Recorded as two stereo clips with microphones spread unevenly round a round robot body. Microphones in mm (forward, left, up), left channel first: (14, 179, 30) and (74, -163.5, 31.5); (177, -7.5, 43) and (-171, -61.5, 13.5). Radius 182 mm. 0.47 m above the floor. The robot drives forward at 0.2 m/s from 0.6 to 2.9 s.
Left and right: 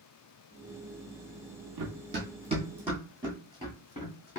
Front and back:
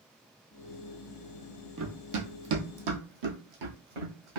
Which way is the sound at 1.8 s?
115° right.